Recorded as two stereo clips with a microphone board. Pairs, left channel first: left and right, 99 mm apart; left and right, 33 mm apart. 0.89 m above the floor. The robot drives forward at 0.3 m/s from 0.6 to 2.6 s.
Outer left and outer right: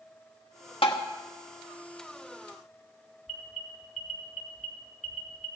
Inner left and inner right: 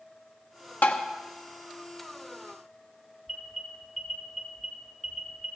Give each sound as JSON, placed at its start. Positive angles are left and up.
{"t": 0.8, "sound": "tapping", "side_deg": 65, "distance_m": 1.4}
{"t": 3.3, "sound": "an alarm", "side_deg": -5, "distance_m": 3.0}